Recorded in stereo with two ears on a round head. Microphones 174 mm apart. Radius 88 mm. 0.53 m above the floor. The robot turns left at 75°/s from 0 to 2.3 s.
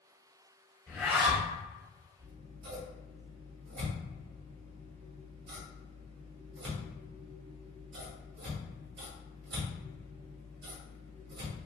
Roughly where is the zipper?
Ahead.